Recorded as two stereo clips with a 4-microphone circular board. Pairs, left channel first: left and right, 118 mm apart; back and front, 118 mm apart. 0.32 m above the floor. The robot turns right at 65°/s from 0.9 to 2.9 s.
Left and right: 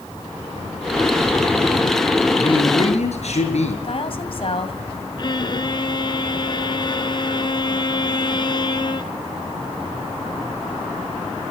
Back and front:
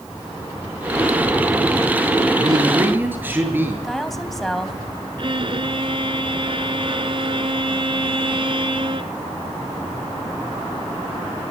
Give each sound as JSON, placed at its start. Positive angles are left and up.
{"t": 2.4, "sound": "a man speaking", "azimuth_deg": 40, "distance_m": 6.5}
{"t": 3.8, "sound": "a woman speaking", "azimuth_deg": 90, "distance_m": 2.5}
{"t": 5.2, "sound": "a violin", "azimuth_deg": 40, "distance_m": 1.4}